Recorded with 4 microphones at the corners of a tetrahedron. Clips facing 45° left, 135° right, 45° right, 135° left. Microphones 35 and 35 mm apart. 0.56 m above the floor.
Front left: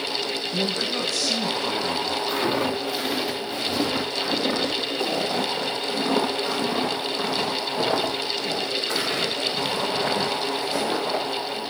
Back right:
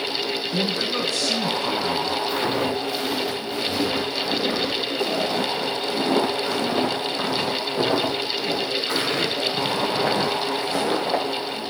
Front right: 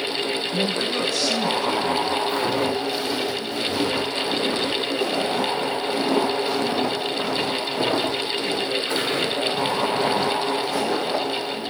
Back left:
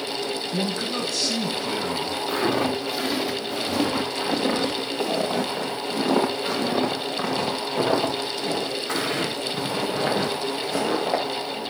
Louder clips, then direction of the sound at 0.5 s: Back right 1 dB, front right 3 dB; 165° left.